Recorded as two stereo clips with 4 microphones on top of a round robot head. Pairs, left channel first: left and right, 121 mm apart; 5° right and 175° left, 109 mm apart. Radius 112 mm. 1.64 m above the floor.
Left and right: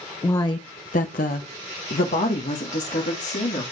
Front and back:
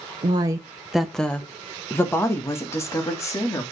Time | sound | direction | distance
0.2 | a woman speaking | 155° left | 0.7 m